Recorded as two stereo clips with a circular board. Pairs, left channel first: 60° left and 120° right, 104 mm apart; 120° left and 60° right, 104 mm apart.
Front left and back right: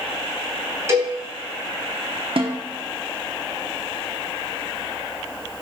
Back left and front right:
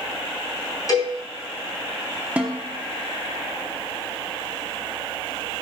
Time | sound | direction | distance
0.9 | a cowbell | 175° left | 3 m
2.4 | a snare drum | 135° right | 0.9 m